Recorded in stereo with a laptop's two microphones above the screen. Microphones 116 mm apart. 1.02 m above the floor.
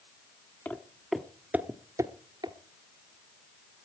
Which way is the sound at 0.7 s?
15° left (ahead or behind).